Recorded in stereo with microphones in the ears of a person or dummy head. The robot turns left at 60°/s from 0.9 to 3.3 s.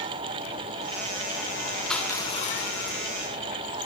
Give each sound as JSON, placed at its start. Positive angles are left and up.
{"t": 1.9, "sound": "crushing", "azimuth_deg": -175, "distance_m": 5.5}